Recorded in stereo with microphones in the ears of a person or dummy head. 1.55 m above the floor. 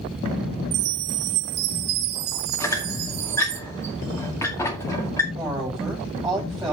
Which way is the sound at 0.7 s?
40° right (ahead or behind).